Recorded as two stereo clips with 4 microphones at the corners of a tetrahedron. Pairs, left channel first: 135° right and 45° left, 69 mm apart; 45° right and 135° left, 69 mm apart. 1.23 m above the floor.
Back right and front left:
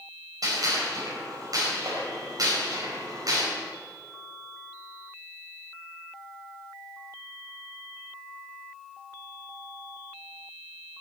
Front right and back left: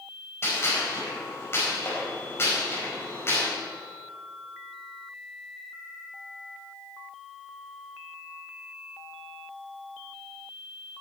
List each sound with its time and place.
0.4 s a gunshot: 10° left, 4.5 m